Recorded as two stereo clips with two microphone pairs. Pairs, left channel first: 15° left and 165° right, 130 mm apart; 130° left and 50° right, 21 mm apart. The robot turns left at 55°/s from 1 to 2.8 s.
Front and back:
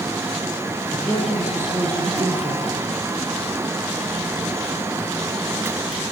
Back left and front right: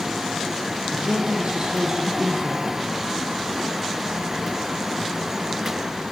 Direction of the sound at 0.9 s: 60° right.